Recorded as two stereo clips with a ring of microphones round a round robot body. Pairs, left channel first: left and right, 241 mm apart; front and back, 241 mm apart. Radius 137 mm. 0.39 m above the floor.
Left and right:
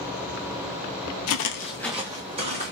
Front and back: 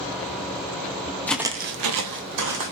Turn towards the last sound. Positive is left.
turn(degrees=-155)